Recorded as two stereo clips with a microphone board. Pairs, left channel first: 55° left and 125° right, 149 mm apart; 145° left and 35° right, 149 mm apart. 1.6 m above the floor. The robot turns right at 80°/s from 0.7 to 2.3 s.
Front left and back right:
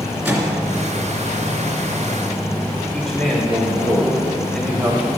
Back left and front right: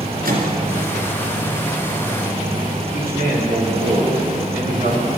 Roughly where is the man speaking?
Ahead right.